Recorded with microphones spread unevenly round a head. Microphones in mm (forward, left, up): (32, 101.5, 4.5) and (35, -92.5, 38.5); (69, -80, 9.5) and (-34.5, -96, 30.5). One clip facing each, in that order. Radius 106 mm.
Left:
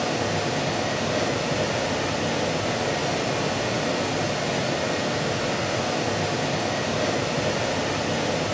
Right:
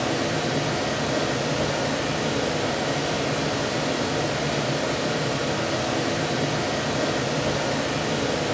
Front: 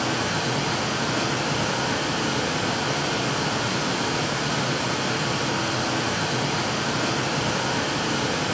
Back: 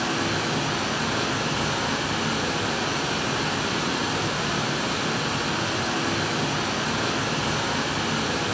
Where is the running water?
35° right, 1.0 m.